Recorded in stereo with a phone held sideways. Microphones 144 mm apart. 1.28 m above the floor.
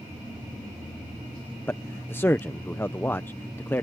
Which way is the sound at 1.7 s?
15° left (ahead or behind).